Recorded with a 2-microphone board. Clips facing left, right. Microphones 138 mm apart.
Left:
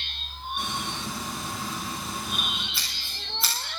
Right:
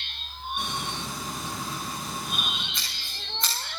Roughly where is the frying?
Centre.